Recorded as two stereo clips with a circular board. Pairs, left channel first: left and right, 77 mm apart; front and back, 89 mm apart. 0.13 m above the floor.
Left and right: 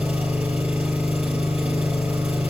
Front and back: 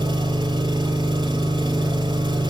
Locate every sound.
0.0 s an engine running: 160° right, 1.3 m